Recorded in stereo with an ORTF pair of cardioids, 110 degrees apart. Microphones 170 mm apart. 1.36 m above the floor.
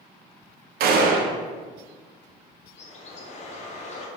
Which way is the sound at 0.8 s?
65° right.